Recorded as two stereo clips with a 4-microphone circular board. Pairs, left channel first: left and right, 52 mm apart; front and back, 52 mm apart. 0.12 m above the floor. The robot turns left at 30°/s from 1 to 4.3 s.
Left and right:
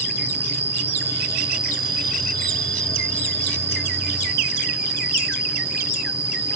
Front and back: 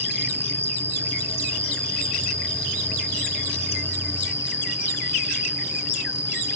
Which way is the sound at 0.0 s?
140° right.